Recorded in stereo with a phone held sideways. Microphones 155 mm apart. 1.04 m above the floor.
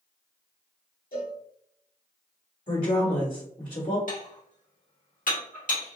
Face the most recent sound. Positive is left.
turn(degrees=60)  # may be behind; listen again after turning